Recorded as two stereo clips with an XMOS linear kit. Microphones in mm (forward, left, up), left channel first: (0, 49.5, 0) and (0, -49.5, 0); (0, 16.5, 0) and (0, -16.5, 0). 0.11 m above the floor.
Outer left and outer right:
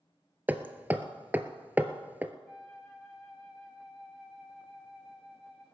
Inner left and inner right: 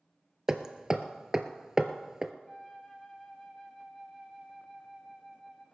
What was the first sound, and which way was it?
Hammering, 15° right (ahead or behind).